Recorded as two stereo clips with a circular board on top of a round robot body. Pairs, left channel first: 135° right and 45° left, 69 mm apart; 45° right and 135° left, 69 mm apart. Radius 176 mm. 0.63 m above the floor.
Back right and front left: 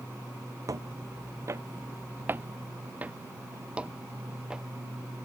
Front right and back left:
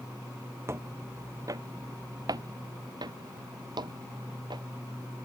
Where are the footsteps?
80° left; by 4.6 s 125° left.